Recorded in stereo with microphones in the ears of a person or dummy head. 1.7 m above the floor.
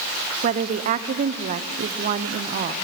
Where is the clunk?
I don't hear a clunk.